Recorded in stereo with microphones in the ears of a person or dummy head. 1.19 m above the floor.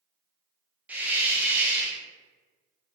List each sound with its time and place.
0.9 s a hiss: 5° right (ahead or behind), 0.7 m